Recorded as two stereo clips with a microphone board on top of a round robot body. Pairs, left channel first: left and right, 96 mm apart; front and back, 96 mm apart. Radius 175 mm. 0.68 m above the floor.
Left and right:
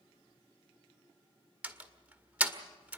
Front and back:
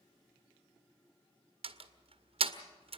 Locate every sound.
1.6 s a door slam: 165° right, 1.4 m